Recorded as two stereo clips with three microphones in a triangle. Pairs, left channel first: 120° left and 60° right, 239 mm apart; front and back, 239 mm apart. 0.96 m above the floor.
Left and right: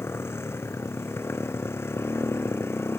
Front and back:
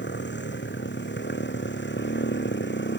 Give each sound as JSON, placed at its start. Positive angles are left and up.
{"t": 0.0, "sound": "a motorcycle", "azimuth_deg": 40}